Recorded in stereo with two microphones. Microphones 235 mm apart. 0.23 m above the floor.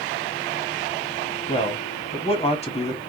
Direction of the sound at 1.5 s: 25° left (ahead or behind).